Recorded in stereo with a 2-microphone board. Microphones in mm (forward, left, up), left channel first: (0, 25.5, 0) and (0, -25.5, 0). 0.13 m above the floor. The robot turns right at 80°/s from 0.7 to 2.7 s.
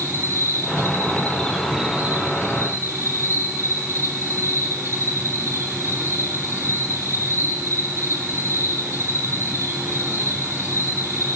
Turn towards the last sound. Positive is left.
turn(degrees=-95)